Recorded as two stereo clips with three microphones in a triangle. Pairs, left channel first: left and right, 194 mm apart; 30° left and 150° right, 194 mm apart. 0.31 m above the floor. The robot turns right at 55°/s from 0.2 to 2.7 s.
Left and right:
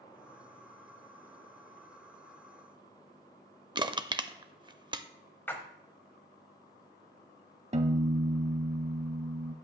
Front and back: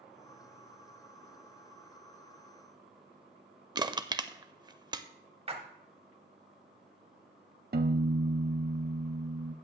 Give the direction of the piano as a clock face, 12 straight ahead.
5 o'clock.